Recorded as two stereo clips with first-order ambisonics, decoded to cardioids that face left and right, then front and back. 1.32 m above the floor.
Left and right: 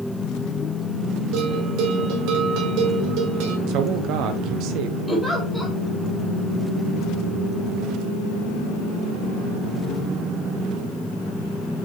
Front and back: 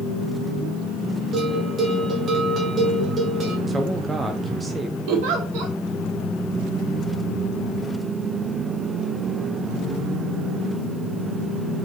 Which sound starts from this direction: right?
A man speaking, at 3.7 s.